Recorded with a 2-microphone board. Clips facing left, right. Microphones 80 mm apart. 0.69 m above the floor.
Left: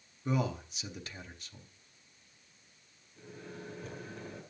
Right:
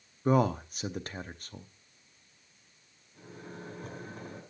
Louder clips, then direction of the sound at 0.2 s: Right 7 dB; 45° right (ahead or behind).